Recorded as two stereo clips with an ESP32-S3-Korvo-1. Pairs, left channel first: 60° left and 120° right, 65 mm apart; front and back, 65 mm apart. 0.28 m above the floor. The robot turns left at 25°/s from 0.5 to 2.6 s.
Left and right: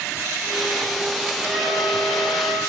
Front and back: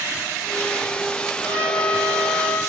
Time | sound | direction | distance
1.4 | a trumpet | 35° right | 6.5 m